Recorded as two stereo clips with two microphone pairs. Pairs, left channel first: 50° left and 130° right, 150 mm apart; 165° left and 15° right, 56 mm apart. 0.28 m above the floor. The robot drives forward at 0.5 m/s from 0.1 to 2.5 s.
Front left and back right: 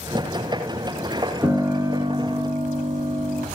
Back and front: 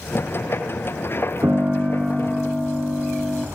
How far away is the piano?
About 0.6 m.